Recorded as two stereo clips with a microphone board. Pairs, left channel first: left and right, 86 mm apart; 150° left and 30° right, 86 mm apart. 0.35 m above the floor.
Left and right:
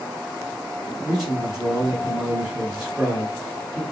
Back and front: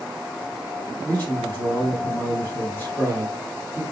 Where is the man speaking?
165° right, 1.7 m.